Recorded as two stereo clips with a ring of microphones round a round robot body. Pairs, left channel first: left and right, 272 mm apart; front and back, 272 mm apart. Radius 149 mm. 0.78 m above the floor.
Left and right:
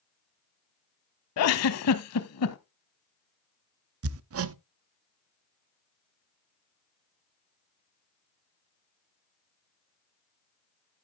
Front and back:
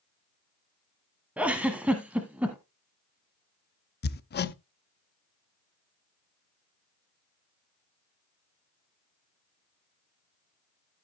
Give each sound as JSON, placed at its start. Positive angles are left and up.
{"t": 1.4, "sound": "a giggle", "azimuth_deg": 95, "distance_m": 0.9}
{"t": 4.0, "sound": "hammering", "azimuth_deg": -55, "distance_m": 0.7}